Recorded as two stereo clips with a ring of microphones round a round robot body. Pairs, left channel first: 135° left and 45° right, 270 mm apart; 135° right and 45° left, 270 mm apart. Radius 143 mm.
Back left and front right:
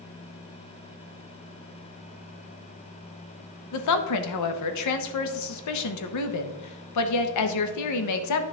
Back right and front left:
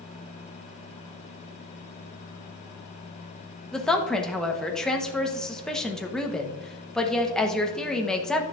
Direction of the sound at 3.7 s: 140° left.